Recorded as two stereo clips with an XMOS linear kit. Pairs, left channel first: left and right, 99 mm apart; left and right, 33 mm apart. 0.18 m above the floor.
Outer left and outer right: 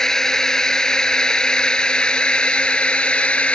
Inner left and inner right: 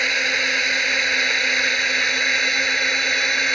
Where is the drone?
5° left (ahead or behind); by 3.5 s 10° left (ahead or behind).